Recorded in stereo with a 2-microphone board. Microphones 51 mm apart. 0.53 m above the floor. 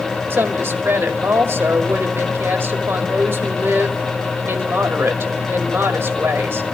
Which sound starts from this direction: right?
A woman speaking, at 0.3 s.